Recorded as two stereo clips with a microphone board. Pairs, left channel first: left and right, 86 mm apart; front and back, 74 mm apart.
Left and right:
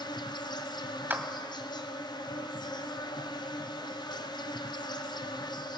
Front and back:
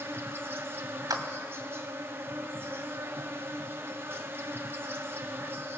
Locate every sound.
0.0 s an insect: 120° left, 1.0 m
1.1 s a clap: 155° right, 1.7 m